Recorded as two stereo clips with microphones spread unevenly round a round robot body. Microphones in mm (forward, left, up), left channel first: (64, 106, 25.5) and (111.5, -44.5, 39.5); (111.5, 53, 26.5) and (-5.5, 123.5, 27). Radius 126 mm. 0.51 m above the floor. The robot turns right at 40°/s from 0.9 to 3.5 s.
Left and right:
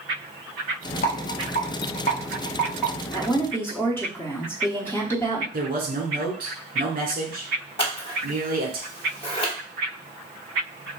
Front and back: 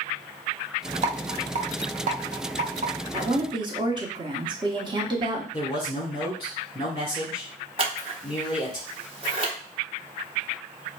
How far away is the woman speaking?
About 1.0 m.